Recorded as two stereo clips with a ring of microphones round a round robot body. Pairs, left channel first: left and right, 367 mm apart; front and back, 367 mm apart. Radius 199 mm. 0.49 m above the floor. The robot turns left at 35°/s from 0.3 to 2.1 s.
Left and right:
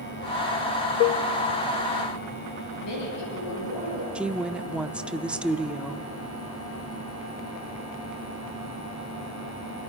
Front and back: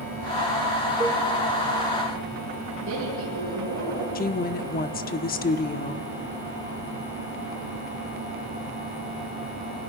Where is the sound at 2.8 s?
120° left, 9.5 m.